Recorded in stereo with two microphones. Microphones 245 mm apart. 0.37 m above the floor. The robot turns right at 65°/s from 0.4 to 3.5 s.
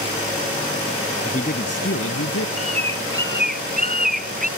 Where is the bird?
95° right; by 4.5 s 35° right.